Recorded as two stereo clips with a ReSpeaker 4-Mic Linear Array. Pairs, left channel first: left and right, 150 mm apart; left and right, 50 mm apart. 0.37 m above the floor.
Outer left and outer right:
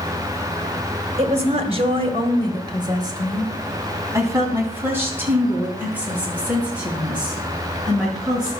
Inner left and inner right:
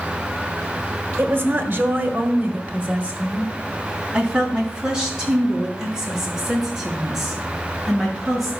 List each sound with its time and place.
1.2 s a woman speaking: 45° right (ahead or behind), 1.7 m; by 8.5 s 5° right (ahead or behind), 5 m